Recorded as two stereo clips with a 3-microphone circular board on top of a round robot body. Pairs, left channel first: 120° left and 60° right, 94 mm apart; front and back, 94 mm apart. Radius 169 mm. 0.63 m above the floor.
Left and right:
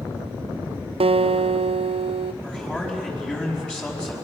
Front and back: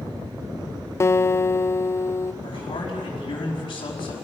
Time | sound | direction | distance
1.0 | a guitar | 65° right | 0.5 m
2.4 | a man speaking | 40° left | 5 m